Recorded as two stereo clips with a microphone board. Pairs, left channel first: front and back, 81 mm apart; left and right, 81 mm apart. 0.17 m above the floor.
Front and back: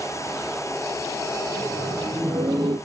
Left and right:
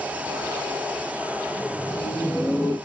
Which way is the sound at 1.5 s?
150° left.